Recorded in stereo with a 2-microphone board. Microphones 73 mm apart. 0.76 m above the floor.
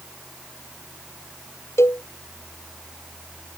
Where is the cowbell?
35° left (ahead or behind).